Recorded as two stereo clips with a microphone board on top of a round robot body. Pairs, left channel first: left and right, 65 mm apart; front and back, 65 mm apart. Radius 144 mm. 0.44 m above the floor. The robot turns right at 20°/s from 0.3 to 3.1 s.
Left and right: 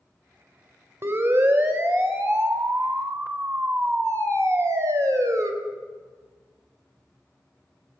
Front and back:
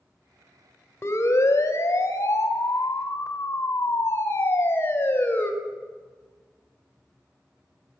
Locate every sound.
1.0 s a siren: 45° right, 3.5 m; by 5.5 s 60° right, 4.5 m